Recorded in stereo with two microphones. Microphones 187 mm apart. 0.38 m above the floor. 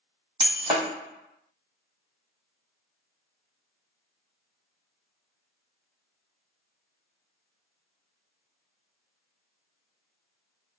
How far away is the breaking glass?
About 1.3 m.